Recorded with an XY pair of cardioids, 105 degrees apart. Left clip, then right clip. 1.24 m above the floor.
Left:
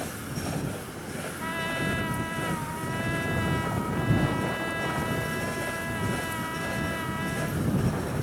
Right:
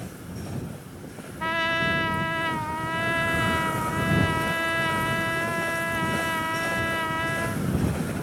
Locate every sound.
1.4 s a trumpet: 50° right